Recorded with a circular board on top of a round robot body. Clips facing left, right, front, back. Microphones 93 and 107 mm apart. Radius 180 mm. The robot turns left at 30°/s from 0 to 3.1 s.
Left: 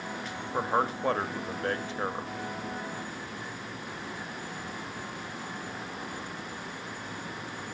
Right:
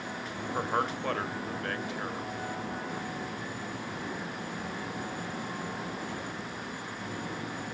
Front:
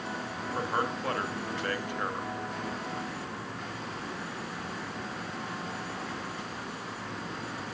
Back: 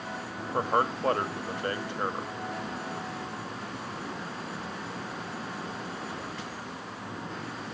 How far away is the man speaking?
About 1.2 m.